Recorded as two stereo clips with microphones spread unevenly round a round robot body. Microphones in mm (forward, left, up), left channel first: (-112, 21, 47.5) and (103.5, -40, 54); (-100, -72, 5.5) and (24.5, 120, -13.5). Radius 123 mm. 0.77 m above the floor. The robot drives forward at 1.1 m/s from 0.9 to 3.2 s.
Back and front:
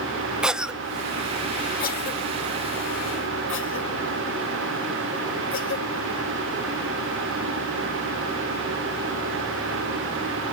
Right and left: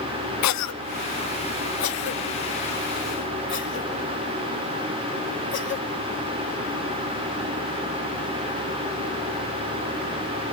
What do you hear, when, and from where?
0.4 s a cough: 105° right, 0.9 m; by 5.9 s 165° right, 3 m